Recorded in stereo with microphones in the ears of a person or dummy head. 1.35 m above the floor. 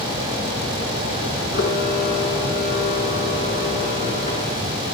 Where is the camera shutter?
50° left (ahead or behind), 8 m.